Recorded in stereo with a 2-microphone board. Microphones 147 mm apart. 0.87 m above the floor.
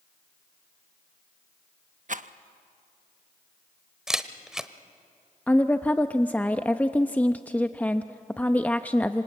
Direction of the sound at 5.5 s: 10° left (ahead or behind).